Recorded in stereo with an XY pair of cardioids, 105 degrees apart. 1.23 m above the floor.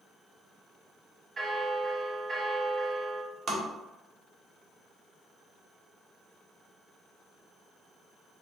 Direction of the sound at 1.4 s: 25° right.